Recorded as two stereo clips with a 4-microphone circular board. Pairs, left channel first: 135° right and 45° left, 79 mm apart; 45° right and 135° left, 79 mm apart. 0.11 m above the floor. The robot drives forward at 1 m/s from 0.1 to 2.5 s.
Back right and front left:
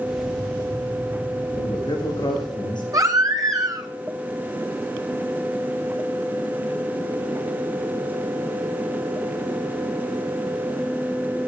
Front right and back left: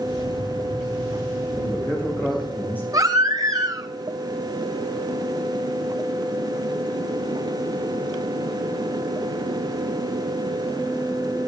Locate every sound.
1.6 s a man speaking: 105° right, 7.5 m; by 2.8 s 110° right, 8 m
2.9 s a baby crying: 90° left, 1.9 m